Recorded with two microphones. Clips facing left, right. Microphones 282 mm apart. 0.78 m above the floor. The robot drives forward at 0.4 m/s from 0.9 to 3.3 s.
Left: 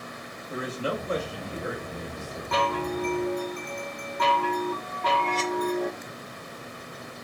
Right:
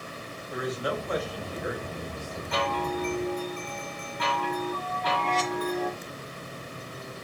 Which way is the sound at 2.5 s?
65° left (ahead or behind).